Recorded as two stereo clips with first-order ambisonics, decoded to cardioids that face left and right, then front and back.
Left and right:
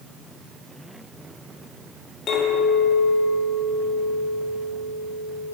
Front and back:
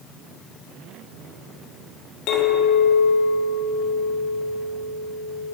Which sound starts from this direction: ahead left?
A clink, at 2.3 s.